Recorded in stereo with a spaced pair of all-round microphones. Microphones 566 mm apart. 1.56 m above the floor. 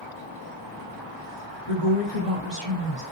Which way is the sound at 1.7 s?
40° left (ahead or behind).